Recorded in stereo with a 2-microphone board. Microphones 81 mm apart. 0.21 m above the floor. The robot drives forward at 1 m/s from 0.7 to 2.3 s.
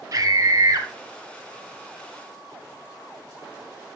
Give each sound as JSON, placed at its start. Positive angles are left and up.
{"t": 0.1, "sound": "a scream", "side_deg": -40, "distance_m": 1.4}